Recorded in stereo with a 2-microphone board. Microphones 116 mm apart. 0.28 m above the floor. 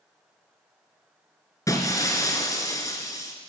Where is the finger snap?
No finger snap in this recording.